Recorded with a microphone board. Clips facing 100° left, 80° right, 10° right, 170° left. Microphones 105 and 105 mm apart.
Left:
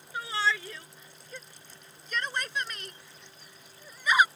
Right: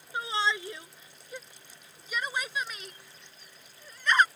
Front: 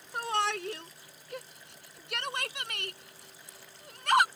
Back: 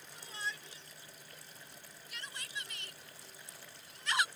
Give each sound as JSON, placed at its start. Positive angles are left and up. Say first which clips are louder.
{"t": 0.1, "sound": "a shout", "louder": "even, front 14 dB", "azimuth_deg": -10}